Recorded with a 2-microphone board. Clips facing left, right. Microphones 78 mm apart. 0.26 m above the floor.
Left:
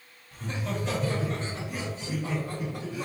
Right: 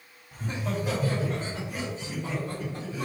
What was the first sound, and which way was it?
Laughter, 15° right (ahead or behind).